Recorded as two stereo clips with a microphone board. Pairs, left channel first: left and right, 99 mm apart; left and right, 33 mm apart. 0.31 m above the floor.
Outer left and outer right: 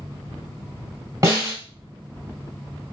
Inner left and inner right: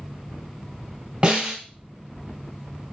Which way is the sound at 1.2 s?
30° right (ahead or behind).